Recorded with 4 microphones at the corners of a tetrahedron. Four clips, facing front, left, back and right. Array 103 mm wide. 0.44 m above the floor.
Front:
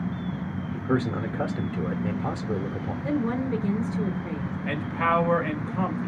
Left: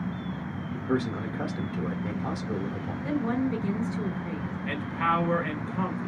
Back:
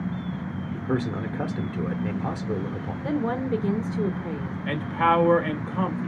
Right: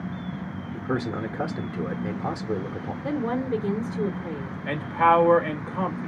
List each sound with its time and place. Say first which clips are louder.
0.7 s a man speaking: even, front 2 dB; 95° right, 0.8 m
3.0 s a woman speaking: right 1 dB, back 1 dB; 135° right, 1.3 m
4.7 s a man speaking: right 8 dB, back 3 dB; 120° right, 1.3 m